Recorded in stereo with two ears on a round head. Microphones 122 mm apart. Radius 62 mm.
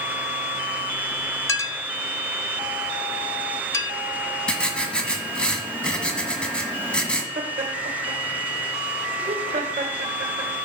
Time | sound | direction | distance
1.5 | a clink | 20° left (ahead or behind) | 0.7 m
4.5 | writing | 10° left (ahead or behind) | 1.3 m
7.3 | laughter | 45° right (ahead or behind) | 1.7 m